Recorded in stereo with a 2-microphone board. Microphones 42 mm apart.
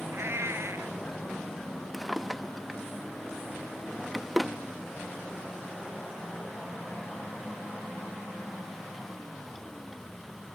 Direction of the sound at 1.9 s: 5° right (ahead or behind).